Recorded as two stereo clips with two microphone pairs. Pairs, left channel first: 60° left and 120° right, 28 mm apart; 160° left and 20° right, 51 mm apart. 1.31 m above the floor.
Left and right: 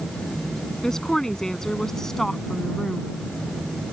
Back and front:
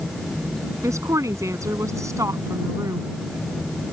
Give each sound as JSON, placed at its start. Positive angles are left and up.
{"t": 0.8, "sound": "a woman speaking", "azimuth_deg": -10}